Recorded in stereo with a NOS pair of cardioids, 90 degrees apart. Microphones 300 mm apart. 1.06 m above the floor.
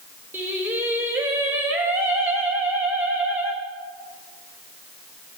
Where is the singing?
5° right, 2.5 m.